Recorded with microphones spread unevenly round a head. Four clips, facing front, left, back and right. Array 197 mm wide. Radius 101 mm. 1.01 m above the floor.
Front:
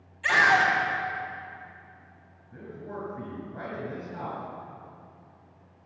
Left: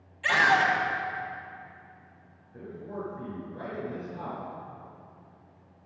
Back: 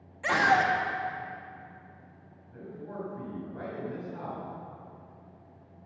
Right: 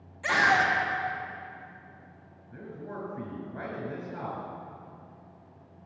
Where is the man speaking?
60° right, 6 m.